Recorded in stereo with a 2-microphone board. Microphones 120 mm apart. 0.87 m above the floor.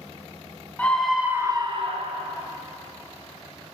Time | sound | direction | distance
0.8 | a scream | 15° left (ahead or behind) | 0.8 m